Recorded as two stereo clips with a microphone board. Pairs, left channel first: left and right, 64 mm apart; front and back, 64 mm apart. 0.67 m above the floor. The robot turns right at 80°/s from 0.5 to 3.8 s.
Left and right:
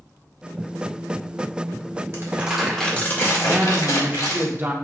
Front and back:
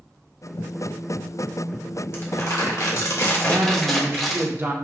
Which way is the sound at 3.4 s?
165° right.